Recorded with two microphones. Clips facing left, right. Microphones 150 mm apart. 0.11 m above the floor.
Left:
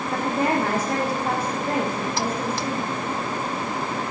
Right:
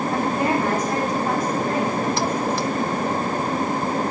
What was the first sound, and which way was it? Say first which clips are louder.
A woman speaking: left 1 dB; 30° left (ahead or behind).